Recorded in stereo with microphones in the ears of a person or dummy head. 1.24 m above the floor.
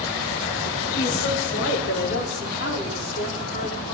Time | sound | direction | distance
1.0 | a woman speaking | 65° left (ahead or behind) | 4 m